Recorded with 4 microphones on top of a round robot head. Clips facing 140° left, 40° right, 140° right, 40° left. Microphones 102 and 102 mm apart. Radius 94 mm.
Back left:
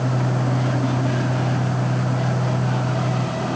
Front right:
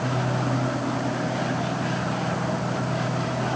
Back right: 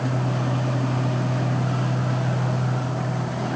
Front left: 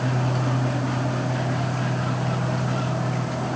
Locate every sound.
Only background noise.